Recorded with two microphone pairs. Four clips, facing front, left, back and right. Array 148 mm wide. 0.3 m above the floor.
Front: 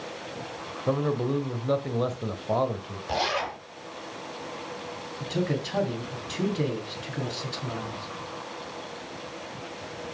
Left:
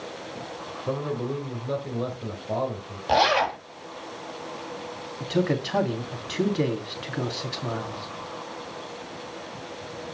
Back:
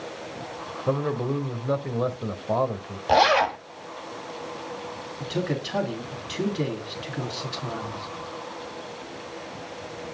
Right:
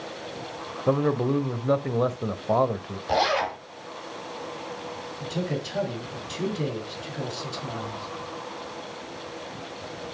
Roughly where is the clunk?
No clunk in this recording.